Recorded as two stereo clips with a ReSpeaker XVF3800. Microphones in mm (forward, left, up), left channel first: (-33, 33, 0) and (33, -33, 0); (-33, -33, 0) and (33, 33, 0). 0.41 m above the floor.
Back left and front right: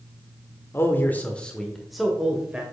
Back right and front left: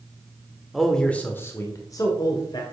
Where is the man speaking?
135° left, 1.2 m; by 2.6 s 120° right, 1.7 m.